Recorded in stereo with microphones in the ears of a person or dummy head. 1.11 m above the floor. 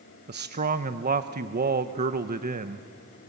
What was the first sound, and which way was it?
A man speaking, 35° right (ahead or behind).